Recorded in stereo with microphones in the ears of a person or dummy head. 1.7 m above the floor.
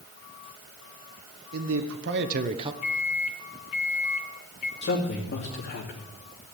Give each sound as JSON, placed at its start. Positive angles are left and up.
{"t": 1.5, "sound": "a man speaking", "side_deg": -85, "distance_m": 1.6}
{"t": 2.8, "sound": "a microwave", "side_deg": 45, "distance_m": 1.0}
{"t": 4.8, "sound": "a man speaking", "side_deg": 50, "distance_m": 2.5}